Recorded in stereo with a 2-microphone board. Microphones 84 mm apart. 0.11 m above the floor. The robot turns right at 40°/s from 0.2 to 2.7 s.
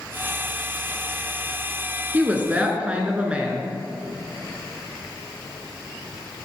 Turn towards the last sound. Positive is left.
turn(degrees=-15)  # may be behind; listen again after turning